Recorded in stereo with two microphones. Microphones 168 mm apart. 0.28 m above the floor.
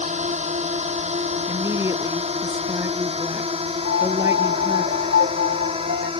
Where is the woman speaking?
15° right (ahead or behind).